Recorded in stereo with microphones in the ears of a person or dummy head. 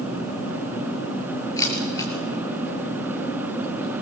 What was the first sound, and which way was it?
A camera shutter, 20° left (ahead or behind).